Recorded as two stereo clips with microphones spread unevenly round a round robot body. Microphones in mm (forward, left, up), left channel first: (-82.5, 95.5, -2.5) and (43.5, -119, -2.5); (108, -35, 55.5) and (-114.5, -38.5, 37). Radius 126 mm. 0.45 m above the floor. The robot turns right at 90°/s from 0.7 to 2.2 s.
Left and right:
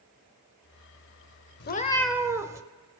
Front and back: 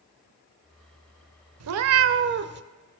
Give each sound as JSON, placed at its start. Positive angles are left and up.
{"t": 1.6, "sound": "a cat meowing", "azimuth_deg": 170, "distance_m": 0.6}